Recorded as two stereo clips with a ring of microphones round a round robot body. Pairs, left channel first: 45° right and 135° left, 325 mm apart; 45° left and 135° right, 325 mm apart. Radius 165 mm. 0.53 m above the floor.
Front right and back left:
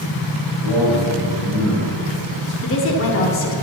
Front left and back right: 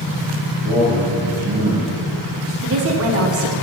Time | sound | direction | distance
0.6 | a man speaking | 35° left | 3.5 m
2.6 | a woman speaking | 90° right | 1.3 m